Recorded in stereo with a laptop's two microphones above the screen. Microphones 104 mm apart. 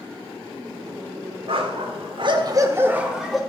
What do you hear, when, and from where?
1.5 s a dog barking: 60° right (ahead or behind), 1.4 m; by 3.4 s centre (ahead or behind), 1.4 m